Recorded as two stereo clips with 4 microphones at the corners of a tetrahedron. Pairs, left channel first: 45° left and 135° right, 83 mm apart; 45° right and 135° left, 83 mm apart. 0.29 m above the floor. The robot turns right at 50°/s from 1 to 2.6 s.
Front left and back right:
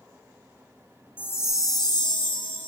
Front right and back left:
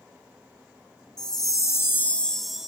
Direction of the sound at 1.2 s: 20° right.